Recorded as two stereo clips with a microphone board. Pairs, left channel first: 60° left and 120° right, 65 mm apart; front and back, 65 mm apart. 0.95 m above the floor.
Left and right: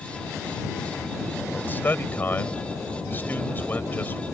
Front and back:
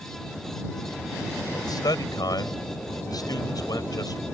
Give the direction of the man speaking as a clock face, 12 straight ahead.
12 o'clock.